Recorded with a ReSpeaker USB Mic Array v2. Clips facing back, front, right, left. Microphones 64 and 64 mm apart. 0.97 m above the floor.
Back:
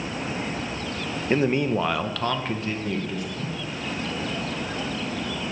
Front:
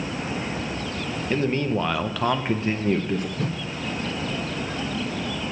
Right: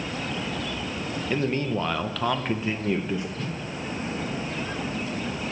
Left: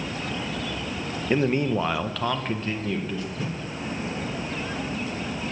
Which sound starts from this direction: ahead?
A whoosh, at 3.4 s.